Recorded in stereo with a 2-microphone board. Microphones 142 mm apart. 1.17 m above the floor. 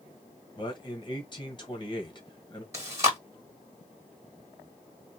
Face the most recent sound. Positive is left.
turn(degrees=-20)  # may be behind; listen again after turning